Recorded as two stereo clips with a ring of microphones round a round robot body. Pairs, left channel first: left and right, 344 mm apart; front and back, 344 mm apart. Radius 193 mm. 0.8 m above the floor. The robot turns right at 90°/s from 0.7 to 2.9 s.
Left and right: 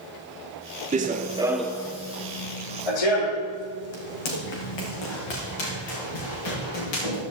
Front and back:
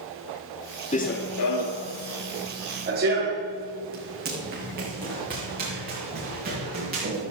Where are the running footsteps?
45° right, 0.8 m; by 7.2 s 110° left, 6.5 m.